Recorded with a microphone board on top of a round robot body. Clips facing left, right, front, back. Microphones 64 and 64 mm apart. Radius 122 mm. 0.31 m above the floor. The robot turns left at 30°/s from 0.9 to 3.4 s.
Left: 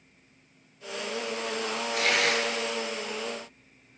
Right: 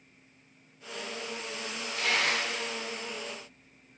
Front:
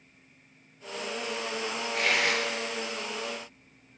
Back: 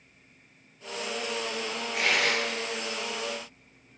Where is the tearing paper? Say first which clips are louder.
Left 3 dB, back 1 dB; 95° left, 2 m; by 2.6 s 75° left, 2 m.